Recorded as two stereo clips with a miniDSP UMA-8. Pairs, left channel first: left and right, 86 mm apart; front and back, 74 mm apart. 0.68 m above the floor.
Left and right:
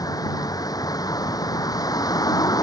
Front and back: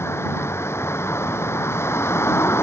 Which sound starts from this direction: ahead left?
A vehicle, at 0.0 s.